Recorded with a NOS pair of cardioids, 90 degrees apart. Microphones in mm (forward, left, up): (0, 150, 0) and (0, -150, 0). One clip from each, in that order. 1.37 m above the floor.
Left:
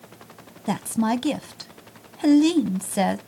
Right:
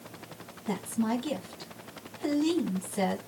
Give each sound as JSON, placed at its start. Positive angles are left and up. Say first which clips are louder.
{"t": 0.7, "sound": "a woman speaking", "louder": "left 7 dB", "azimuth_deg": 60, "distance_m": 0.7}